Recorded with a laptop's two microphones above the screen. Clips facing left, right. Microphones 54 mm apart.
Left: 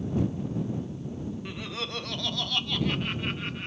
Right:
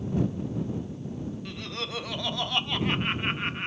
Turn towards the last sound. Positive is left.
turn(degrees=-35)  # may be behind; listen again after turning